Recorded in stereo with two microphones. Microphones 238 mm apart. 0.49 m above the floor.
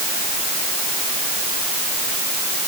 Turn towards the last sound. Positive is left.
No sound to turn to.